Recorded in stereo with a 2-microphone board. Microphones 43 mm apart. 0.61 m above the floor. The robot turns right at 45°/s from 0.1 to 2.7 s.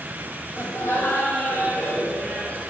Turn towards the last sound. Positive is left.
turn(degrees=160)